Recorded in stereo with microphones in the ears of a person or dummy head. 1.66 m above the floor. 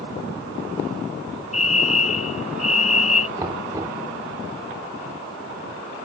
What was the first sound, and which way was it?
A fire alarm, 45° left (ahead or behind).